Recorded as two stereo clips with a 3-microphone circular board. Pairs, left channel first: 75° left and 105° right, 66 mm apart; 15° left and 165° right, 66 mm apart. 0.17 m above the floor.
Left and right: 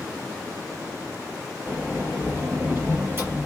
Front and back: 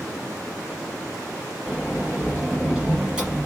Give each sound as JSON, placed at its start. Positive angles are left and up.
{"t": 1.7, "sound": "a sliding door", "azimuth_deg": -100, "distance_m": 1.2}